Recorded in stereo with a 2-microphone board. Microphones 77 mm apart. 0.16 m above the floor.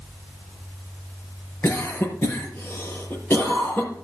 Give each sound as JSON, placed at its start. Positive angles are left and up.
{"t": 1.6, "sound": "a cough", "side_deg": 30, "distance_m": 4.5}